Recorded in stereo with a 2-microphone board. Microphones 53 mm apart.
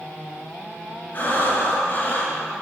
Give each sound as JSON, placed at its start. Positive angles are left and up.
{"t": 1.1, "sound": "breathing", "side_deg": 40, "distance_m": 2.5}